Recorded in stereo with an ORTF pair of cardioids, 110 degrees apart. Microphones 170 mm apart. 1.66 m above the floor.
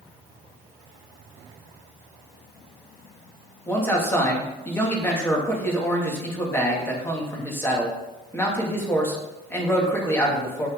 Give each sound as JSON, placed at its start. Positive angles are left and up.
{"t": 3.7, "sound": "a man speaking", "azimuth_deg": 15, "distance_m": 3.0}